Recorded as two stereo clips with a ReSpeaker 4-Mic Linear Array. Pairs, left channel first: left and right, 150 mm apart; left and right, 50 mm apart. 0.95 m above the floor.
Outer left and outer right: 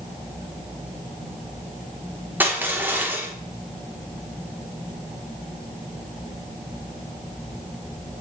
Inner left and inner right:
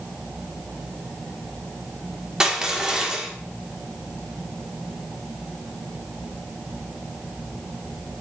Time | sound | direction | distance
2.4 | crushing | 10° right (ahead or behind) | 3 m